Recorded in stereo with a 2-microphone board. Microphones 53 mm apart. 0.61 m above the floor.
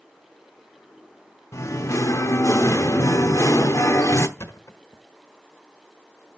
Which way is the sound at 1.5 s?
70° left (ahead or behind).